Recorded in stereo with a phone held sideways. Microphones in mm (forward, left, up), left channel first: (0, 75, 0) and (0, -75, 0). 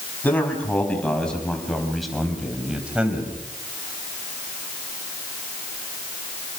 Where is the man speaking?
10° left (ahead or behind), 6 m; by 3.3 s 10° right (ahead or behind), 4.5 m.